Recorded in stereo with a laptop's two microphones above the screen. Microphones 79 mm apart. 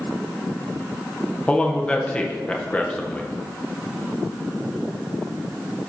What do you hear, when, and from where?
1.5 s a man speaking: 15° left (ahead or behind), 0.7 m